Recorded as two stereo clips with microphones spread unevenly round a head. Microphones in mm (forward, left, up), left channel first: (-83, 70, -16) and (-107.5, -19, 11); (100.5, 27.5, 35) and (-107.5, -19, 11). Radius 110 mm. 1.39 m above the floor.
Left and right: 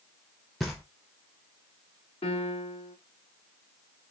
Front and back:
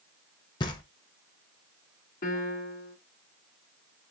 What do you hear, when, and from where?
0.6 s knocking: 35° right, 0.5 m
2.2 s a piano: 50° left, 0.7 m